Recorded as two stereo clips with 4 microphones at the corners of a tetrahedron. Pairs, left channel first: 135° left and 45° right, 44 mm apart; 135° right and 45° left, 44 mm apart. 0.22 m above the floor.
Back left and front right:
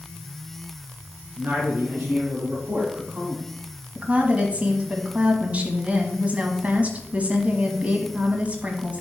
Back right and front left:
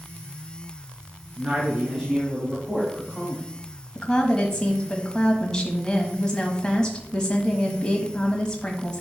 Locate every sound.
1.4 s a man speaking: 30° right, 3.5 m; by 3.5 s 80° right, 1.6 m
4.0 s a woman speaking: 75° right, 1.2 m